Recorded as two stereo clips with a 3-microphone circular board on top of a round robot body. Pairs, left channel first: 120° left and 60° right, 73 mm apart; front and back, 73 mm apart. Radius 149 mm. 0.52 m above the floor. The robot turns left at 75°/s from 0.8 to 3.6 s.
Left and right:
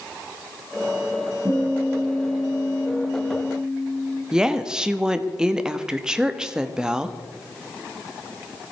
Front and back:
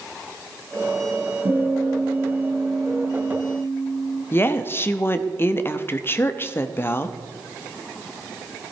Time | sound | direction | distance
1.4 | a guitar | 145° right | 9 m
4.3 | a woman speaking | 10° left | 1.2 m